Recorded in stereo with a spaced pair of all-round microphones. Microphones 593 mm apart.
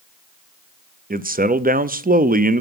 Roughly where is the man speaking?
Centre.